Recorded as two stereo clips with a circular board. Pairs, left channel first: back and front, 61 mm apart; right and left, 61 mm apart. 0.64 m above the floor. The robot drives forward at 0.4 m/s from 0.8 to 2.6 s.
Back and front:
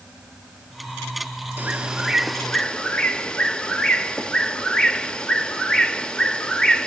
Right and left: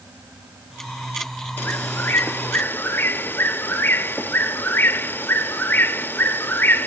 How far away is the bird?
About 0.6 m.